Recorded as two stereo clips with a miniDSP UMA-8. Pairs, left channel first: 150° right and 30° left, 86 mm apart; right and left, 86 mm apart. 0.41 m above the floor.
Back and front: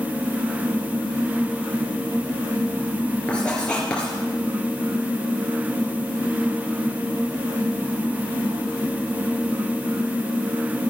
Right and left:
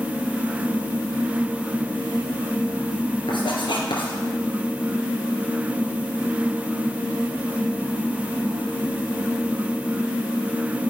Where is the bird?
I don't hear a bird.